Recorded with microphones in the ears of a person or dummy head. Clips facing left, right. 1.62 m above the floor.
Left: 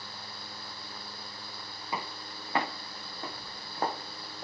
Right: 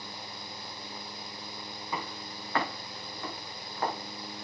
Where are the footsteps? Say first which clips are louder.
Even; 20° left (ahead or behind), 5.5 m; by 4.4 s 50° left (ahead or behind), 3.5 m.